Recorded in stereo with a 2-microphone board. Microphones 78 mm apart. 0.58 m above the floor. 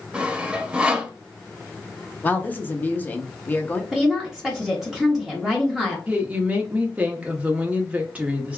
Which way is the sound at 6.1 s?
15° right (ahead or behind).